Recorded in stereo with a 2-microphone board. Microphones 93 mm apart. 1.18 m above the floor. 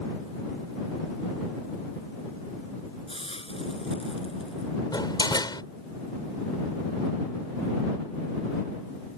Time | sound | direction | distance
3.1 | a hiss | 75° left (ahead or behind) | ?
4.9 | a door slam | 45° left (ahead or behind) | ?